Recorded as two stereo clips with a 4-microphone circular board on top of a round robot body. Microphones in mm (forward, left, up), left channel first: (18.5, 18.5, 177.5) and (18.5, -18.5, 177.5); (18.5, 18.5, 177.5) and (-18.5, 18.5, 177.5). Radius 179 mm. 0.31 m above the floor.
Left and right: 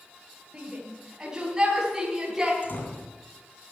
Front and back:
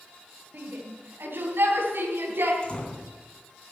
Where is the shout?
155° right, 3 m; by 2.5 s 170° right, 4 m.